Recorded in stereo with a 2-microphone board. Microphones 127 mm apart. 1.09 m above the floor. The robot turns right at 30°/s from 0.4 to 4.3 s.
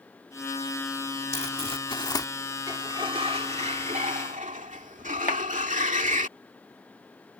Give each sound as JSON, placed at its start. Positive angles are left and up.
{"t": 1.3, "sound": "crumpling", "side_deg": 55}
{"t": 2.7, "sound": "a sliding door", "azimuth_deg": -150}
{"t": 5.3, "sound": "a clap", "side_deg": 75}